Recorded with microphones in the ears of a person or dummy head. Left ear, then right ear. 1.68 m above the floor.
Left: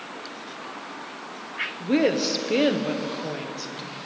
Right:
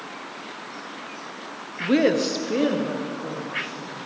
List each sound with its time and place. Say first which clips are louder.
1.8 s a woman speaking: right 3 dB; 20° right (ahead or behind), 0.8 m; by 4.0 s 65° left (ahead or behind), 1.8 m